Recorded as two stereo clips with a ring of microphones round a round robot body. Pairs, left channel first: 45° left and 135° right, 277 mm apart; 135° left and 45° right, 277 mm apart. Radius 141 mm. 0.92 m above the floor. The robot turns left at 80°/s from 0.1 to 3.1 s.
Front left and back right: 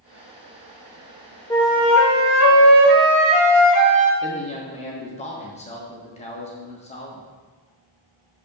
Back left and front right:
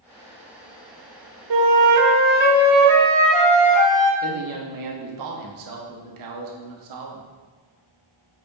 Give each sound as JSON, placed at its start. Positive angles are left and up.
{"t": 1.5, "sound": "a flute", "azimuth_deg": -30, "distance_m": 0.9}
{"t": 4.2, "sound": "a man speaking", "azimuth_deg": -25, "distance_m": 1.2}